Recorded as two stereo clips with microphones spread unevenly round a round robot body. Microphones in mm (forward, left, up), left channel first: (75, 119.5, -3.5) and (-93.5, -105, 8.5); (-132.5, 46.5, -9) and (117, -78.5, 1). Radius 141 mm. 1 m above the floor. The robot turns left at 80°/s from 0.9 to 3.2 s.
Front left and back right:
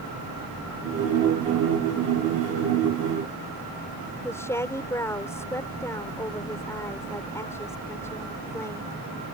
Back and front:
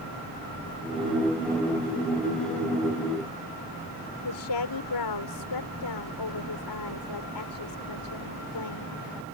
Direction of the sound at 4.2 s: 135° left.